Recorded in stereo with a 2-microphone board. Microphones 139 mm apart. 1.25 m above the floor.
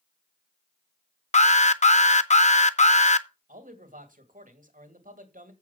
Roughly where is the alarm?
Left.